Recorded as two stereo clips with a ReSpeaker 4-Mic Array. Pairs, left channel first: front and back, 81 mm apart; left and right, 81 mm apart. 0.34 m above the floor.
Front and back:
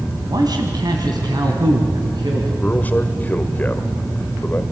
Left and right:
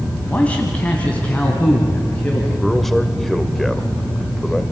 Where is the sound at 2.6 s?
5° left, 1.3 m.